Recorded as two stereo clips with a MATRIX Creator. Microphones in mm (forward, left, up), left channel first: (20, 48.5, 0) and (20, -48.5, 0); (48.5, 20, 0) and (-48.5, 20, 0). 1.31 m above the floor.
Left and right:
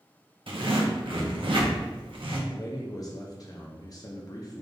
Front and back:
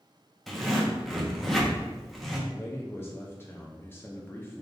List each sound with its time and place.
0.5 s a zipper: 90° right, 0.8 m
2.5 s a man speaking: 60° left, 0.5 m